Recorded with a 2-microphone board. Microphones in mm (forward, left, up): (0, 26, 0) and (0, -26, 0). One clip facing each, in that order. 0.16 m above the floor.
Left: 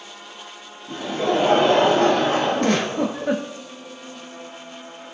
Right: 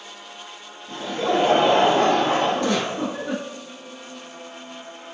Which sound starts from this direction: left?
A giggle, at 2.6 s.